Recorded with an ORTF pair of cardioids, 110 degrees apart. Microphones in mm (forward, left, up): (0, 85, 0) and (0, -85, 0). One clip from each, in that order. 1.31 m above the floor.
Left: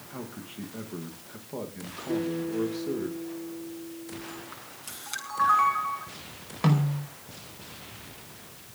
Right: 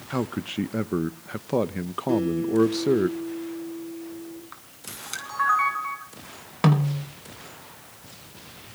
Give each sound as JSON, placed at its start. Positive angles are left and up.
{"t": 0.1, "sound": "a man speaking", "azimuth_deg": -70, "distance_m": 1.1}
{"t": 2.1, "sound": "a guitar", "azimuth_deg": -35, "distance_m": 9.5}
{"t": 4.5, "sound": "a camera shutter", "azimuth_deg": -20, "distance_m": 9.5}
{"t": 6.6, "sound": "a snare drum", "azimuth_deg": -40, "distance_m": 5.0}